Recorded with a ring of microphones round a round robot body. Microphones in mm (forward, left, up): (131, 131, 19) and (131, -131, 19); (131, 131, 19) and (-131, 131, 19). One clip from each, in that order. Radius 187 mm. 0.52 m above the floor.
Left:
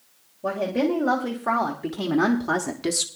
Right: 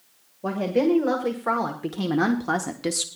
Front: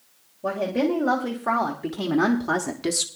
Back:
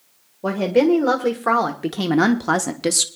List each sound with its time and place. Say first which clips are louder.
0.4 s a woman speaking: right 1 dB, back 7 dB; 160° right, 1.8 m; by 3.1 s 165° left, 0.8 m